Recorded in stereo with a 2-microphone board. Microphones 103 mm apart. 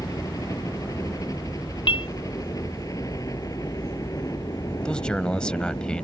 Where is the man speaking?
10° left (ahead or behind).